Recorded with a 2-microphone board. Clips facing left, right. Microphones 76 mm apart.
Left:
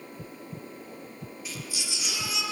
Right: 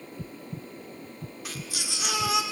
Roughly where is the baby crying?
Right.